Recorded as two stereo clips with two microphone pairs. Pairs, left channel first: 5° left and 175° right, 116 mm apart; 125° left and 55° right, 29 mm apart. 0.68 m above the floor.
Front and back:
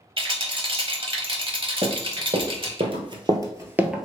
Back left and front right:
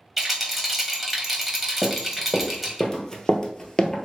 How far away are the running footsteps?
About 1.5 m.